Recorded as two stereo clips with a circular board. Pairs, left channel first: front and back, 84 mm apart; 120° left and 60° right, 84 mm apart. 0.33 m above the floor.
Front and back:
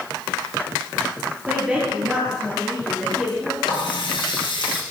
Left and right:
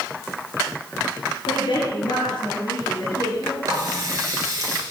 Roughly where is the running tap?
Ahead.